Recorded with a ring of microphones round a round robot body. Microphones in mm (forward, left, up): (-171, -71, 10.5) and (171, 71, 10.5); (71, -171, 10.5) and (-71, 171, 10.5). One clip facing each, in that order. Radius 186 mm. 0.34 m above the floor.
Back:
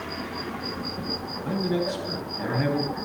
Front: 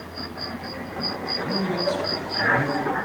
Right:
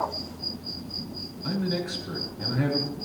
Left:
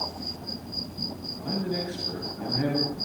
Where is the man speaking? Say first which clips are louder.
Even, right 1 dB; 35° right, 7 m.